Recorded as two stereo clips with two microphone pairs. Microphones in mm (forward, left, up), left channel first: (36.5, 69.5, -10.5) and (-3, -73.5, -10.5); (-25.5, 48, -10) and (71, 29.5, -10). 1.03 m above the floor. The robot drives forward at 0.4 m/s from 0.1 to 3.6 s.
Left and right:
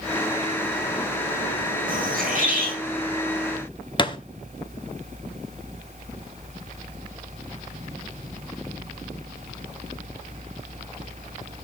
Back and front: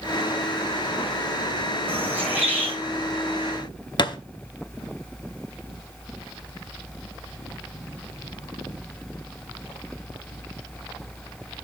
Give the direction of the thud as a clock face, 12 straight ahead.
8 o'clock.